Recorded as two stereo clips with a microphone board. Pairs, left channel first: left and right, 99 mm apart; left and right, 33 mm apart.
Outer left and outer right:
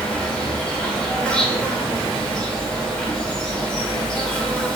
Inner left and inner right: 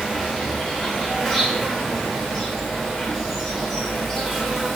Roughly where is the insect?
Centre.